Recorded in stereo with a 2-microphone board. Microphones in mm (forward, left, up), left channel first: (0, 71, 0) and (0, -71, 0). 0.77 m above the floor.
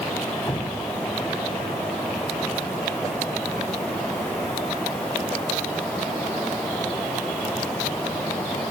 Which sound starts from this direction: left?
Dripping, at 0.5 s.